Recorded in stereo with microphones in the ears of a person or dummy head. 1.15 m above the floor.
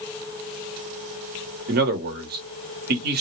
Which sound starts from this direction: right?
A man speaking, at 1.7 s.